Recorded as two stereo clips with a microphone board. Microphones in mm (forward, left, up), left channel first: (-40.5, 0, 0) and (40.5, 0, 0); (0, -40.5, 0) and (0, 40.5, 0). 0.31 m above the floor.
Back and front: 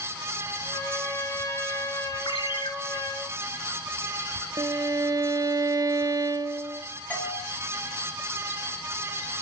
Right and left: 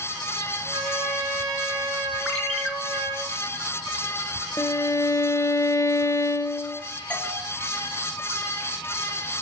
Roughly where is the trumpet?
Behind left.